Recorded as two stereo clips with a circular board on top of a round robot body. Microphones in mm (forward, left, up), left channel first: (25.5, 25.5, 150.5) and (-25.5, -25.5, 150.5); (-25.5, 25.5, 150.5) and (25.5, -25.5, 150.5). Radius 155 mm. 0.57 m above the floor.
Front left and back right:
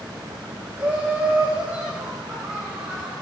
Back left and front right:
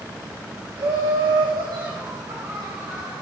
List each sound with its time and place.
0.8 s laughter: 65° right, 3.5 m; by 3.1 s 55° right, 5.5 m